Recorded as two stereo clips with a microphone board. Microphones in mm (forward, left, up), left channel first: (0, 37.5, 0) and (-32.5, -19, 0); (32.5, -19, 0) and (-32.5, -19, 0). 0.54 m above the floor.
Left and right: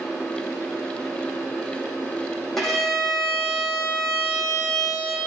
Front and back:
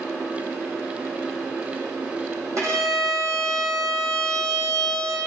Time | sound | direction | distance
2.6 | a violin | 145° left | 4.5 m